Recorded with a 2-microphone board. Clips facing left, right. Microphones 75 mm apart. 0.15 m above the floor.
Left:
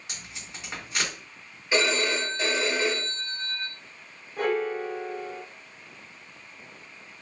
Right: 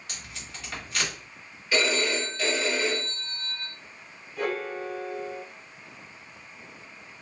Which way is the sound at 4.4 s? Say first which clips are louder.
Left 4 dB; 35° left (ahead or behind).